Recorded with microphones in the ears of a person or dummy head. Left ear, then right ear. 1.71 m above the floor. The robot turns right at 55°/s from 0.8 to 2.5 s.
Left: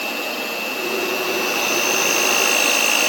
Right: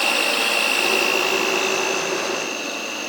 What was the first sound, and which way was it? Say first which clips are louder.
An insect: right 5 dB; 45° right.